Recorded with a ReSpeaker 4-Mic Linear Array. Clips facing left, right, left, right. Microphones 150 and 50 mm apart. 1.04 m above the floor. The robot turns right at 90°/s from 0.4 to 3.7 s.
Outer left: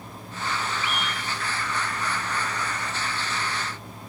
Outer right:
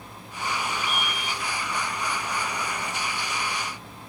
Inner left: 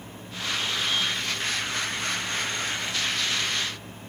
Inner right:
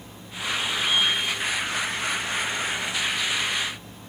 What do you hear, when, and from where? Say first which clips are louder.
0.8 s a scream: even, inner right 4 dB; 140° right; by 1.4 s 90° right